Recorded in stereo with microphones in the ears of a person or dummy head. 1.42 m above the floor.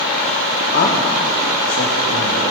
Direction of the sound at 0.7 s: 65° left (ahead or behind).